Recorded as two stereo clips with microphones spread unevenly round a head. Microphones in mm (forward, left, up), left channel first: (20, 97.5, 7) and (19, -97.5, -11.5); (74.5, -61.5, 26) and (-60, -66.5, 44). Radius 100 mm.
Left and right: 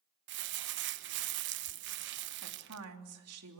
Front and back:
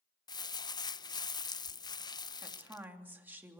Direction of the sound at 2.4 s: 100° right.